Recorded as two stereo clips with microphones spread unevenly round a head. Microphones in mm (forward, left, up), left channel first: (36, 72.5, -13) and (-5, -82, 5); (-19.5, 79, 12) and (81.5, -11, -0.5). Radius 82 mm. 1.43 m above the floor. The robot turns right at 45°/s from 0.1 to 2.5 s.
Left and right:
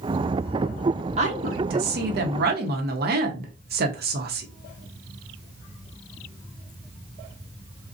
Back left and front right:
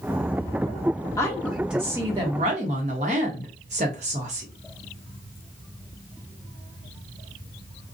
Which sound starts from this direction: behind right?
A woman speaking, at 1.2 s.